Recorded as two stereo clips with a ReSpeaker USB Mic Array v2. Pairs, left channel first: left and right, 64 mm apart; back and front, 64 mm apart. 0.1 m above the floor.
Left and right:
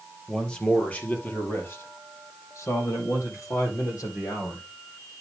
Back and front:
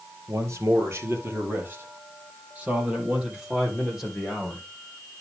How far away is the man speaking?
About 2.5 m.